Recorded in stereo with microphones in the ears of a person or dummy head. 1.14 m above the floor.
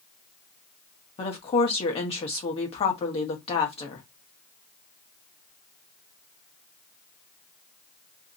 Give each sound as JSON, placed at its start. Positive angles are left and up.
{"t": 1.2, "sound": "a woman speaking", "side_deg": 40, "distance_m": 1.1}